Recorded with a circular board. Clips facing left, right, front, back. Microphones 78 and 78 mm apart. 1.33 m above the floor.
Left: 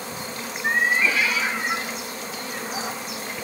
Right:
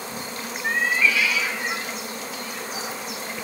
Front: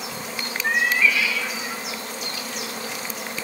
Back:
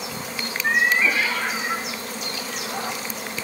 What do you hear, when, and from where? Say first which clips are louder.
0.6 s a cat meowing: left 1 dB, back 1 dB; 95° left, 0.5 m; by 3.1 s 150° left, 2.5 m